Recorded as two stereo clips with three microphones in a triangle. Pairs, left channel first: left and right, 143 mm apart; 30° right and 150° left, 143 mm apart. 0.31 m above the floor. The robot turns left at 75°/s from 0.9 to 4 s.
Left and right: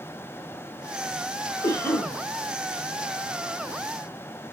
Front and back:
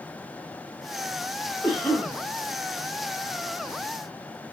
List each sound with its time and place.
1.6 s a cough: 55° left, 1.1 m; by 2.1 s 15° left, 1.1 m